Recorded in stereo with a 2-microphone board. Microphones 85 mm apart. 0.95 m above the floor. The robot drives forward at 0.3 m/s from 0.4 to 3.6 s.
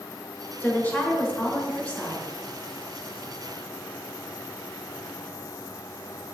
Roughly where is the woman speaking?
Left.